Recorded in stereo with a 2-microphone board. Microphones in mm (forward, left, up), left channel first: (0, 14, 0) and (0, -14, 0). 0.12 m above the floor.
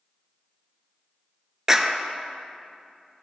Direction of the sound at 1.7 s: 15° right (ahead or behind).